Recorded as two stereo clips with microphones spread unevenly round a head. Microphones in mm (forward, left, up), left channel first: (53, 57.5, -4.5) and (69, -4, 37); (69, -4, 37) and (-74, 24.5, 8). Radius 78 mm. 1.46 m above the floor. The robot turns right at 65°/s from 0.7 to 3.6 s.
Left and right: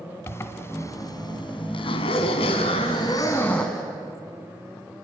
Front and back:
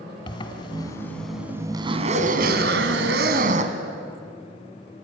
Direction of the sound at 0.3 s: 30° left.